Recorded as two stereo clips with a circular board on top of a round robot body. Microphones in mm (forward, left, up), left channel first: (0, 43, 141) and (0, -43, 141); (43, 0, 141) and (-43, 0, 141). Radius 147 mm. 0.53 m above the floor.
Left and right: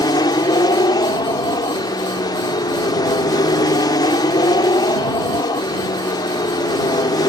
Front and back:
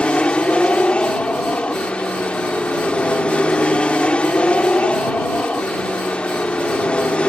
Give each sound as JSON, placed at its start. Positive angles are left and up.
{"t": 0.0, "sound": "an aircraft", "azimuth_deg": 75}